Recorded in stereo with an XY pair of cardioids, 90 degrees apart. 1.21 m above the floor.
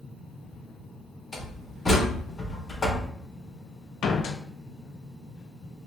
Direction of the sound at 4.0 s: 70° left.